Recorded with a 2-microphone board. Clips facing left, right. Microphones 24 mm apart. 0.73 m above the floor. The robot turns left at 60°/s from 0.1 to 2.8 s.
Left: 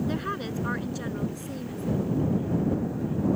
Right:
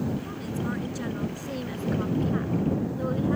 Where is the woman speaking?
55° left; by 3.4 s 105° right.